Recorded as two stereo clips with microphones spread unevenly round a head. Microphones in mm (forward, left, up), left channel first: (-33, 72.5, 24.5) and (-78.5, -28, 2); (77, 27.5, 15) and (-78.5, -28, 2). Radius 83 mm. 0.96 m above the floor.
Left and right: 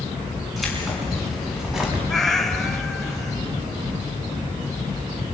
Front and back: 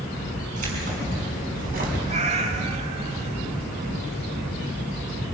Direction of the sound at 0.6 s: 155° left.